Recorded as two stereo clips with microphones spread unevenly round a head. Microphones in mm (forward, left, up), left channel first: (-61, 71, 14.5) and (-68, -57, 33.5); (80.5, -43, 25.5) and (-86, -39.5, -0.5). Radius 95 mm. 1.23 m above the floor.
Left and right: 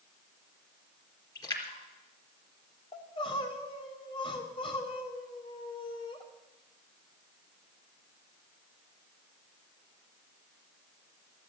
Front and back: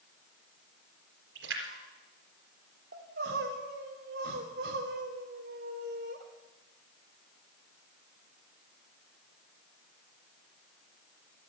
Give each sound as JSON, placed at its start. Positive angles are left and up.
{"t": 1.4, "sound": "a splash", "azimuth_deg": 145, "distance_m": 3.5}
{"t": 2.9, "sound": "crying", "azimuth_deg": 135, "distance_m": 2.5}